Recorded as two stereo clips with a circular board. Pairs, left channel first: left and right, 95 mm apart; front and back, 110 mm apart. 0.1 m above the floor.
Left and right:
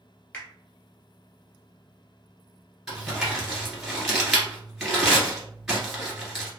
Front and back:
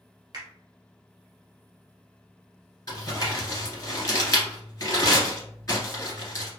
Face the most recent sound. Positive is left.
turn(degrees=-5)